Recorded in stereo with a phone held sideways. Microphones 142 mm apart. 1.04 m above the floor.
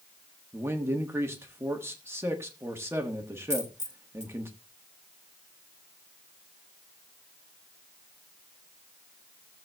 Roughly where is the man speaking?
Centre.